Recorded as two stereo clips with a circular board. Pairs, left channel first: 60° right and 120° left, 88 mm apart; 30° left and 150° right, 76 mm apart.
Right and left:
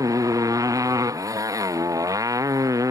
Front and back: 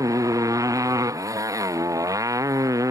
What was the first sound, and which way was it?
A motorcycle, 170° left.